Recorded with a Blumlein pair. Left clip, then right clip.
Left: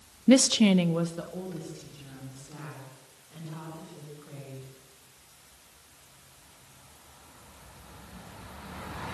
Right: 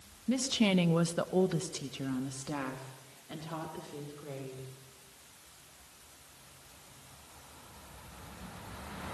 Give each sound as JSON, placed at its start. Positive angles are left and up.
{"t": 0.3, "sound": "a woman speaking", "azimuth_deg": 50, "distance_m": 0.8}